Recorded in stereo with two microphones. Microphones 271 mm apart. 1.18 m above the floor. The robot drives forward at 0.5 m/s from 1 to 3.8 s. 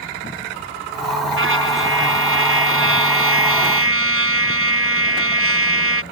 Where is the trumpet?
50° right (ahead or behind); by 6.0 s 55° right (ahead or behind).